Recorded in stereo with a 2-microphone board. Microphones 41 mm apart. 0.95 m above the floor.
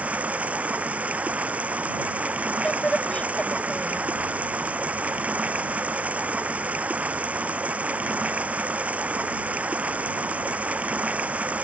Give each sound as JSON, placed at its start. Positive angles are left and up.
{"t": 0.0, "sound": "running water", "side_deg": -35}
{"t": 2.6, "sound": "a woman speaking", "side_deg": 30}